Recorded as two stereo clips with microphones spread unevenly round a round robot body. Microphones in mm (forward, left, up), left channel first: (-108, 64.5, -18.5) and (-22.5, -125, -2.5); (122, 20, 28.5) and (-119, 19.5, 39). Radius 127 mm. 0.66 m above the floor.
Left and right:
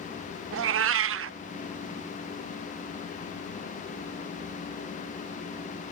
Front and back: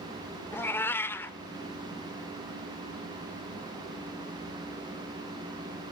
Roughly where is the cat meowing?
Right.